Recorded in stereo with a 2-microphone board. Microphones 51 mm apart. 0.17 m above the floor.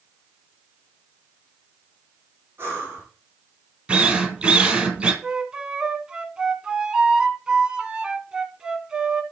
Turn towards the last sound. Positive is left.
turn(degrees=-15)  # may be behind; listen again after turning